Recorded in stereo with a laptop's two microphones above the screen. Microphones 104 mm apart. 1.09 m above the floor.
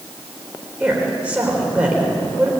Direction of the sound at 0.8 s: 10° right (ahead or behind).